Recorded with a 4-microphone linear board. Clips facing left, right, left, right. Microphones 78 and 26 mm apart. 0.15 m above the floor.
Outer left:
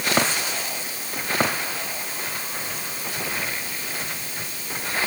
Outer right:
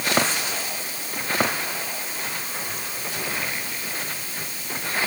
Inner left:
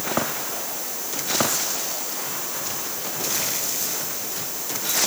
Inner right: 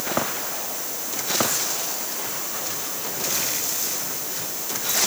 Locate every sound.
Only background noise.